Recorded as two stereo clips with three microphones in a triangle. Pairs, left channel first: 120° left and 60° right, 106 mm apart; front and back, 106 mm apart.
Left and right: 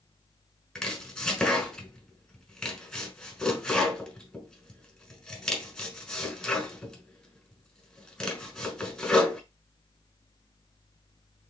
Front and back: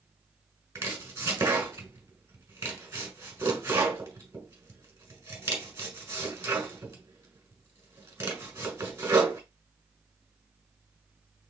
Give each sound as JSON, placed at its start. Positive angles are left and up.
{"t": 0.8, "sound": "chopping", "azimuth_deg": -160, "distance_m": 1.3}